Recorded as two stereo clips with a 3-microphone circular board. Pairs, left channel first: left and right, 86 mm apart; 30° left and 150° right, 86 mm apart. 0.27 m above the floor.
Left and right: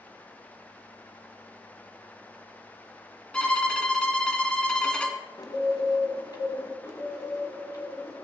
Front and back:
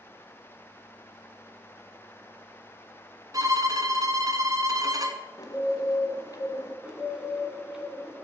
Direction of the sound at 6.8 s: 130° left.